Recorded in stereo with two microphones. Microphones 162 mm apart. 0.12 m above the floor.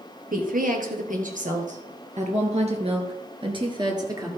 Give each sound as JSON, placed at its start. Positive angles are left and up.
{"t": 0.3, "sound": "a woman speaking", "side_deg": -60, "distance_m": 3.0}